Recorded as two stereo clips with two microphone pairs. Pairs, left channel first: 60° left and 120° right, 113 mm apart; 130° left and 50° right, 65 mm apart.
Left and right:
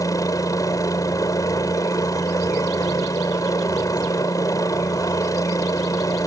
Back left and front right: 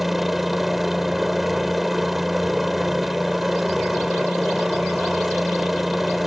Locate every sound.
0.0 s a helicopter: 35° left